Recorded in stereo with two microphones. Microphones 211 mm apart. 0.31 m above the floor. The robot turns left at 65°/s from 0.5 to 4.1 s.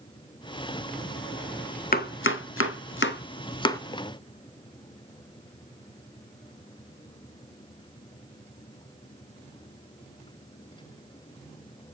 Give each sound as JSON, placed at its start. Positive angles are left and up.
{"t": 1.9, "sound": "chopping", "side_deg": 45, "distance_m": 0.8}